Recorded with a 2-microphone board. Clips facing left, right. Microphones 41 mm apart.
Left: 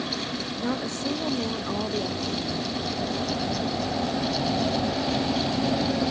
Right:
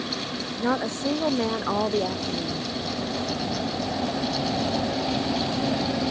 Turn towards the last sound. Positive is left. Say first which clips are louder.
# right 5 dB
turn(degrees=-45)  # may be behind; listen again after turning